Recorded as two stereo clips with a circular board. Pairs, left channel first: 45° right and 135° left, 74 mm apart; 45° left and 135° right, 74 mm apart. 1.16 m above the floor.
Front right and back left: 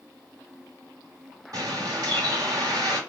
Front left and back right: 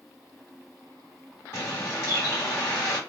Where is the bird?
100° left, 1.5 m.